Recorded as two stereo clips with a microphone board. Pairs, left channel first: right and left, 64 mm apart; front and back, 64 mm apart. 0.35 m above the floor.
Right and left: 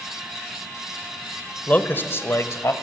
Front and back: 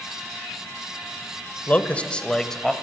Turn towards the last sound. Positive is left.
turn(degrees=-85)